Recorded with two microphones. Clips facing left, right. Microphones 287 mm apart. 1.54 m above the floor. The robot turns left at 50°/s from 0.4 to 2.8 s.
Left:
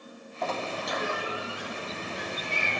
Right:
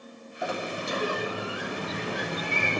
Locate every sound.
0.4 s a sliding door: 10° right, 0.6 m; by 2.8 s 130° right, 0.6 m